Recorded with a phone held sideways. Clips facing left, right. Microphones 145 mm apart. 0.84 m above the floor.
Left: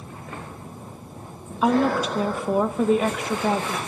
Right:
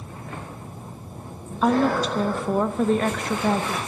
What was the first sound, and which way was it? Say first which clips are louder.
A woman speaking: even; 5° left (ahead or behind).